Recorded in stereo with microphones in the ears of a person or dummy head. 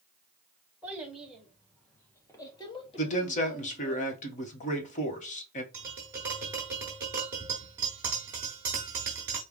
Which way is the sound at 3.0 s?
45° left (ahead or behind).